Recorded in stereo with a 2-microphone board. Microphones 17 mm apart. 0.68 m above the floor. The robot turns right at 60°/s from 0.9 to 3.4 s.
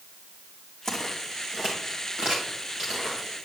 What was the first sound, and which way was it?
Footsteps, 25° left (ahead or behind).